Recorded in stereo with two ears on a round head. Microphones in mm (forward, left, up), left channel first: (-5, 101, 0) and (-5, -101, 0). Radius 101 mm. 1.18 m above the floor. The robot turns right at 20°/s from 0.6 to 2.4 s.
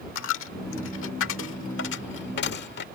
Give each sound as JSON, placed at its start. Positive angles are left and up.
{"t": 0.1, "sound": "a dropped coin", "side_deg": 60}